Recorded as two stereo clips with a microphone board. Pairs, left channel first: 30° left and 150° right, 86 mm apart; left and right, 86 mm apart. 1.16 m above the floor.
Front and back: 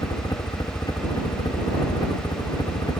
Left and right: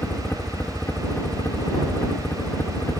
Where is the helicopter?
35° left.